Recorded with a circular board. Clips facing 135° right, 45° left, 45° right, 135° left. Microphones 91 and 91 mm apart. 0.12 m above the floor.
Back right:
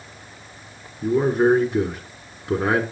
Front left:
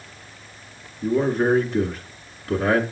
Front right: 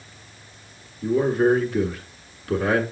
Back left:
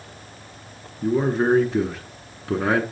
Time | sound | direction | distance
1.0 | a man speaking | 165° left | 1.3 m